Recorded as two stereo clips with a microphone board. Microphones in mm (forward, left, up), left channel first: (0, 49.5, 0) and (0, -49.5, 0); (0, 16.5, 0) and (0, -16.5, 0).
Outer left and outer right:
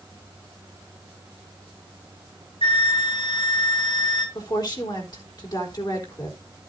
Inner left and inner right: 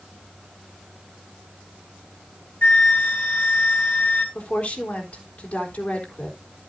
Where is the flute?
70° left (ahead or behind), 3.5 m.